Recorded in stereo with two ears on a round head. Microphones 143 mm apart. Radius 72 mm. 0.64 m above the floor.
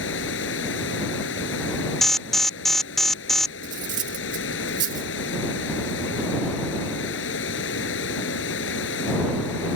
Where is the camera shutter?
No camera shutter in this recording.